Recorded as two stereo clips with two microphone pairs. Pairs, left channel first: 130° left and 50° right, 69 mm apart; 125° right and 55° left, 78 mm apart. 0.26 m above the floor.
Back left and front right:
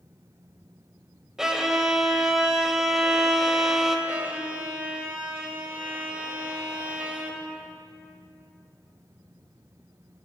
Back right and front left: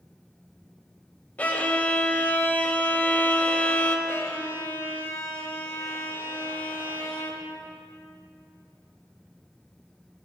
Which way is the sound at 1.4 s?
120° right.